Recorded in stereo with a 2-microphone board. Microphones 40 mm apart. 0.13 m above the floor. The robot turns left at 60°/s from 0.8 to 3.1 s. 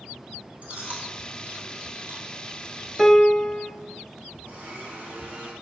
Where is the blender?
45° right (ahead or behind), 3.5 m.